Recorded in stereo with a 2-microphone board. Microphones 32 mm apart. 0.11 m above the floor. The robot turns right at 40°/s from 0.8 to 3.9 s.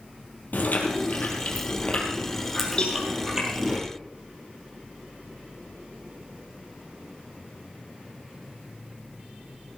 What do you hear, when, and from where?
0.5 s chewing: 100° left, 3.5 m; by 3.8 s 140° right, 3.5 m
2.8 s a cowbell: 30° left (ahead or behind), 3 m; by 3.0 s 25° left (ahead or behind), 3 m